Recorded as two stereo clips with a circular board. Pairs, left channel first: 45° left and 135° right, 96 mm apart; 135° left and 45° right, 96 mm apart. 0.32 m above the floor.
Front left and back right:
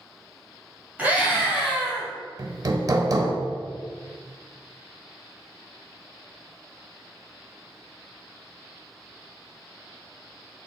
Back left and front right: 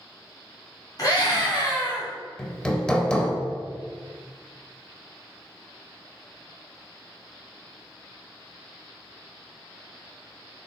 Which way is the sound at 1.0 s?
160° left.